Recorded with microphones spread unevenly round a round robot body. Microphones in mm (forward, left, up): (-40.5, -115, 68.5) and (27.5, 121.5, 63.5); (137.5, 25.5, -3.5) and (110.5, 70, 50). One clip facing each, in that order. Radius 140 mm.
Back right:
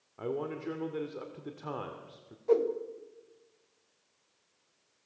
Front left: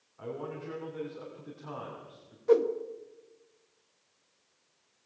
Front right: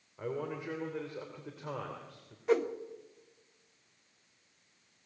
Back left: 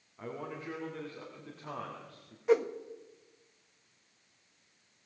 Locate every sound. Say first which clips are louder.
0.2 s a man speaking: back right 4 dB, front right 4 dB; 105° right, 2.5 m
2.5 s a whoosh: front left 3 dB, back left 2 dB; 5° left, 1.6 m